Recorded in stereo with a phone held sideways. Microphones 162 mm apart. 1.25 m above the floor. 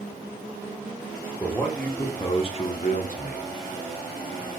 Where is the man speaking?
Centre (ahead or behind), 1.3 m; by 3.5 s 65° left (ahead or behind), 1.1 m.